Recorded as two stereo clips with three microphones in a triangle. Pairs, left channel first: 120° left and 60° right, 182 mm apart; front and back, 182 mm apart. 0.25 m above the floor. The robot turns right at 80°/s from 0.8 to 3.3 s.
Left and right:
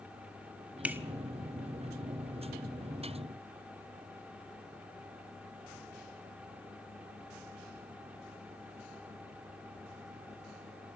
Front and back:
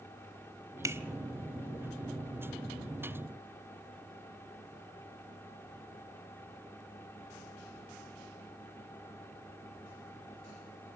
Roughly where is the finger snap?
Behind right.